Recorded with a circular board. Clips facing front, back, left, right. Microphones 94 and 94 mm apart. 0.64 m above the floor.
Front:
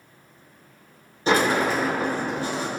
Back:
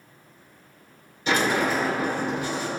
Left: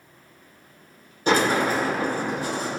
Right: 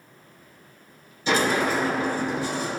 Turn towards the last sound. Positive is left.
turn(degrees=55)